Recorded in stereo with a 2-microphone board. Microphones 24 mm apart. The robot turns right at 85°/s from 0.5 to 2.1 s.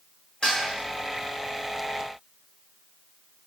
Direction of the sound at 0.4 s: 40° left (ahead or behind).